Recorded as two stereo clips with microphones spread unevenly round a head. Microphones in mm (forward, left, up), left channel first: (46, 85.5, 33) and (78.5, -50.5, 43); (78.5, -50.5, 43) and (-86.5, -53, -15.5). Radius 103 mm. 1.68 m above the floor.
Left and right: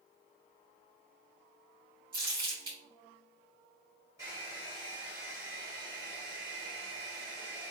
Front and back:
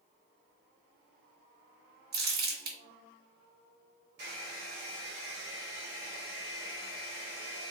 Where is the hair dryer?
150° right, 2.5 m.